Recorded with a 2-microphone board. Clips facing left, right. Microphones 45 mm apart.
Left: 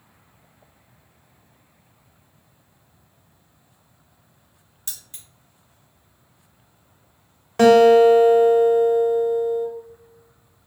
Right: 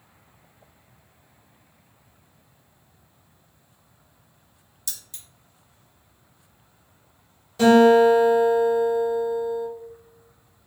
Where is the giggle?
I don't hear a giggle.